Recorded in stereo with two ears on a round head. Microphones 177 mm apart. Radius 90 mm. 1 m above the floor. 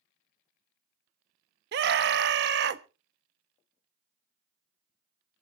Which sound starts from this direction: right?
A scream, at 1.7 s.